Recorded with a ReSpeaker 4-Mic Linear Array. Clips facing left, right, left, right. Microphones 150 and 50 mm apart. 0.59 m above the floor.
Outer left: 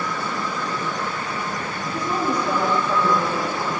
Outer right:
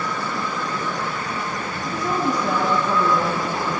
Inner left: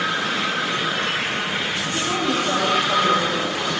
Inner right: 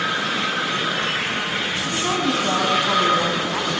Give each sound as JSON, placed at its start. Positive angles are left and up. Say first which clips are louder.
{"t": 1.8, "sound": "a woman speaking", "louder": "outer right 1 dB, inner right 2 dB", "side_deg": -80, "distance_m": 4.0}